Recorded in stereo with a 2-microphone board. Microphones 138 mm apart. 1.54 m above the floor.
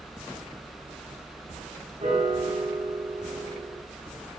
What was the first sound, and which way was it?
A piano, 60° right (ahead or behind).